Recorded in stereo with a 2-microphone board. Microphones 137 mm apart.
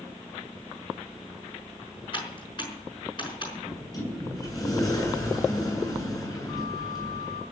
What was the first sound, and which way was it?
Typing on a keyboard, 40° left (ahead or behind).